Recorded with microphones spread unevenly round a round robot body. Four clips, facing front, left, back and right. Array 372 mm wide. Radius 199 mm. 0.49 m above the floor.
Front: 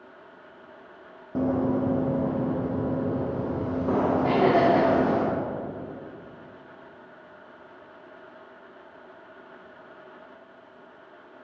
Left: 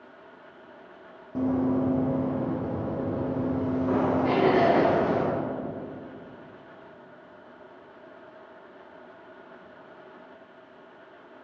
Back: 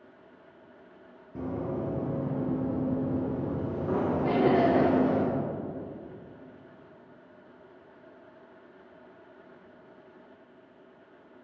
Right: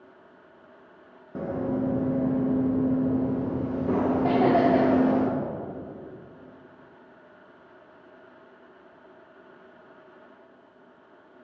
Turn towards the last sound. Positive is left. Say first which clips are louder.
# right 1 dB, front 2 dB
turn(degrees=-45)